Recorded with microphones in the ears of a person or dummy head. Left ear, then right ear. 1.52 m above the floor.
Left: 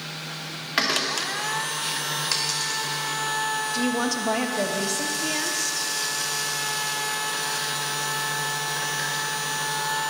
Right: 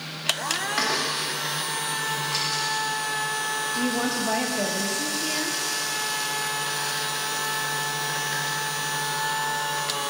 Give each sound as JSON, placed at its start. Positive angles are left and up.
{"t": 0.8, "sound": "a door slam", "side_deg": 20, "distance_m": 2.0}
{"t": 2.3, "sound": "a dropped coin", "side_deg": 65, "distance_m": 3.0}
{"t": 3.7, "sound": "a woman speaking", "side_deg": 20, "distance_m": 1.2}